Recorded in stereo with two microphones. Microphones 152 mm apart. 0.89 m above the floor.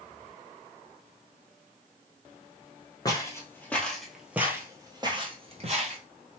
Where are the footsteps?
25° left (ahead or behind), 1.3 m; by 6.0 s 50° right (ahead or behind), 1.4 m.